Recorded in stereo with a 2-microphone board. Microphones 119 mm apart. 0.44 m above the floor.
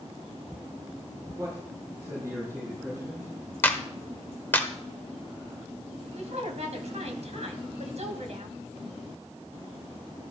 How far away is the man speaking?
About 6 m.